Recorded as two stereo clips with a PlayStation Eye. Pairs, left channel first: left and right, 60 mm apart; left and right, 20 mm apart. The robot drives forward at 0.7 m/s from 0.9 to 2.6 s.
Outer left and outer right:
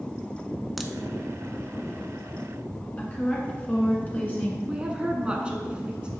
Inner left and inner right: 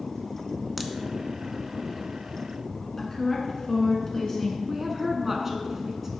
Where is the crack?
Centre (ahead or behind), 0.5 m.